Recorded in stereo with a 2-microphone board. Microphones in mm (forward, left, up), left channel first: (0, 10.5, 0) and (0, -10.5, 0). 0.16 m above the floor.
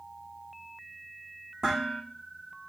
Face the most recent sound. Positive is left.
turn(degrees=-35)  # may be behind; listen again after turning